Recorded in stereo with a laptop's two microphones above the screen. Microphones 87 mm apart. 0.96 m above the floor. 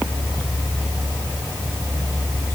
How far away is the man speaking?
No man speaking in this recording.